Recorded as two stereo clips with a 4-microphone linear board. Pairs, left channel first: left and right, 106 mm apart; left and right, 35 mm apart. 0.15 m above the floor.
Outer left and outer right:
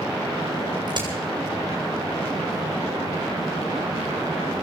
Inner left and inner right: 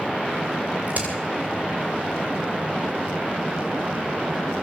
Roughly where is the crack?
Right.